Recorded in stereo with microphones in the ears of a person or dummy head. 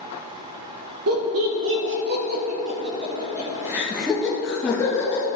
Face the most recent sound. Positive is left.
turn(degrees=15)  # may be behind; listen again after turning